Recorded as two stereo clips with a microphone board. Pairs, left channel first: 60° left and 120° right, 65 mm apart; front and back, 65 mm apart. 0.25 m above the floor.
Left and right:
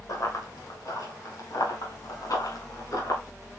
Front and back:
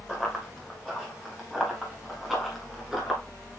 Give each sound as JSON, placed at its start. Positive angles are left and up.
{"t": 0.1, "sound": "running footsteps", "azimuth_deg": 80, "distance_m": 7.0}